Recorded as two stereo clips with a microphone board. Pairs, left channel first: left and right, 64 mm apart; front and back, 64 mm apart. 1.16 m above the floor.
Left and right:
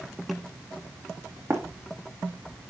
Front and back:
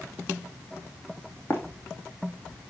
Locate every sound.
1.5 s running footsteps: 55° right, 2.5 m